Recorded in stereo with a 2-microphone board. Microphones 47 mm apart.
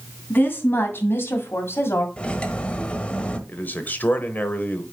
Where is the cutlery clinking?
25° left (ahead or behind), 1.0 m.